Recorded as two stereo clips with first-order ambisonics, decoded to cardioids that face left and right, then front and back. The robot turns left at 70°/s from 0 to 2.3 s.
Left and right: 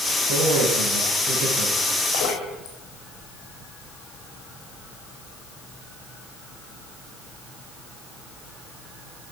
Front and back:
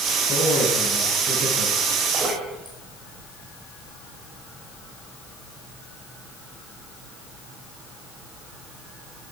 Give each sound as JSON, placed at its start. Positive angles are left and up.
{"t": 0.3, "sound": "a man speaking", "azimuth_deg": -60, "distance_m": 9.0}
{"t": 2.1, "sound": "dripping", "azimuth_deg": 115, "distance_m": 5.0}